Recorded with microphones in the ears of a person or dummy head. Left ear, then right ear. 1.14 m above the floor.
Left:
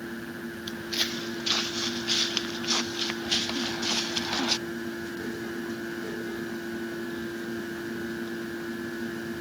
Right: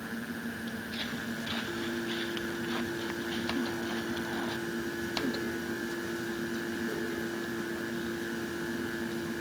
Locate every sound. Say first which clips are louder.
0.7 s footsteps: left 11 dB; 80° left; by 4.6 s 75° left (ahead or behind)